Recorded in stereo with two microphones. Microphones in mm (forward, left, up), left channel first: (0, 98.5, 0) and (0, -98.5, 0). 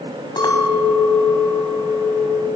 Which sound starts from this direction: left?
A clink, at 0.4 s.